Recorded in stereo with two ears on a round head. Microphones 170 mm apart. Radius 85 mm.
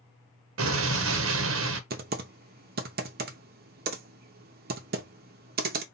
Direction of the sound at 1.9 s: 50° right (ahead or behind).